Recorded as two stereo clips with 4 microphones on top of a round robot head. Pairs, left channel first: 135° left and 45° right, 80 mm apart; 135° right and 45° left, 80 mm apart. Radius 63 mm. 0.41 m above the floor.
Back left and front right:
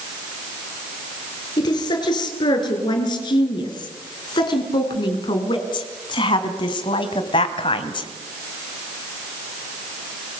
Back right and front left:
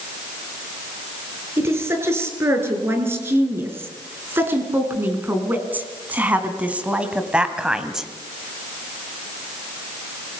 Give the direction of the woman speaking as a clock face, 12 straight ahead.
9 o'clock.